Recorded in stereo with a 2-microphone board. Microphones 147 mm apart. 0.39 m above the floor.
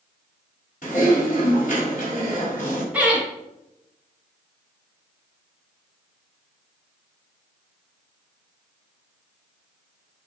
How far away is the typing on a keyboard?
About 1.7 m.